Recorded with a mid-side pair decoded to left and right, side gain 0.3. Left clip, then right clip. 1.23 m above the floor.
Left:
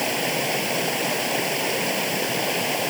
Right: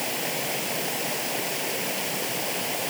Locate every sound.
0.0 s running water: 60° left